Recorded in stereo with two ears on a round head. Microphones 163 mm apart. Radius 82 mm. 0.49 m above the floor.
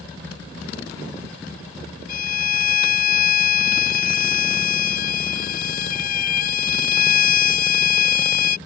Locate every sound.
2.1 s a violin: 50° left (ahead or behind)